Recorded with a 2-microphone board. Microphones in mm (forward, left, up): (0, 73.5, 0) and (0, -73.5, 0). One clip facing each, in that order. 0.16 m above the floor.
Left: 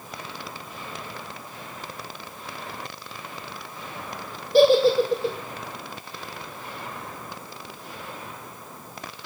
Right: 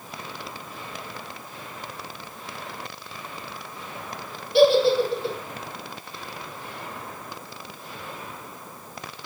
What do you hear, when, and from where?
4.5 s a giggle: 40° left (ahead or behind), 0.8 m